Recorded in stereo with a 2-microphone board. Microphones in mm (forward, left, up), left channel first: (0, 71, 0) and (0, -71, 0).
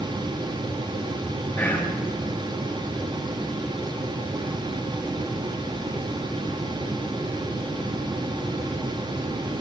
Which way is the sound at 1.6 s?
15° left (ahead or behind).